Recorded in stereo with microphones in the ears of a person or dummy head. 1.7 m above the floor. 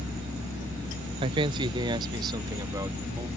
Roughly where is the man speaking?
Right.